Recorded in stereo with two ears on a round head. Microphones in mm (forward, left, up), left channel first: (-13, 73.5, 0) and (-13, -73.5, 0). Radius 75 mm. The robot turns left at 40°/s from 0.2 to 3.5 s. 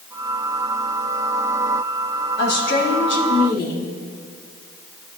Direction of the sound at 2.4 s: 105° left.